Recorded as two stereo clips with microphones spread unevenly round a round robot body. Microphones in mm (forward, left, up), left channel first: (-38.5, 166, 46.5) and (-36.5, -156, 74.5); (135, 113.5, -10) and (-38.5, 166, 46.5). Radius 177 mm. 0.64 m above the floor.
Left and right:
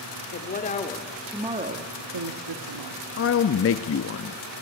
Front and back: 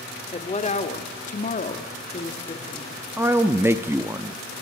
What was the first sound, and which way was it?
A woman speaking, 35° left.